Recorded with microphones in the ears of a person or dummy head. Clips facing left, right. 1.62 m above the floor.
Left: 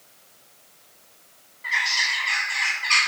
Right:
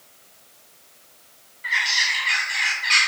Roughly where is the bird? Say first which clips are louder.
Even; right.